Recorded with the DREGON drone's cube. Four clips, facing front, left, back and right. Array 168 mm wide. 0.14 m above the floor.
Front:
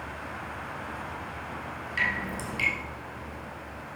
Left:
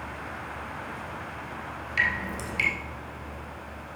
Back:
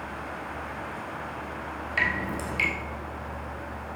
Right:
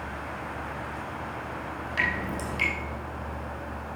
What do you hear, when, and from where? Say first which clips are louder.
2.0 s dripping: left 1 dB, back 2 dB; 145° right, 3 m